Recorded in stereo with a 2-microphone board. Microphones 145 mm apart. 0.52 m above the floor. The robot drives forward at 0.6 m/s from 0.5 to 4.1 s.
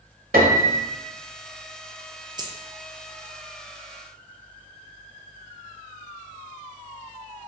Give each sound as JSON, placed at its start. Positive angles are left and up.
{"t": 0.3, "sound": "a piano", "side_deg": -80, "distance_m": 1.3}
{"t": 2.4, "sound": "a dropped coin", "side_deg": -30, "distance_m": 1.1}